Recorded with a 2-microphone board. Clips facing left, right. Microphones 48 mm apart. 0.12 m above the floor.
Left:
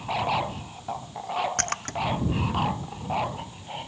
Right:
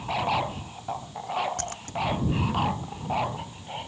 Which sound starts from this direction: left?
A splash, at 1.6 s.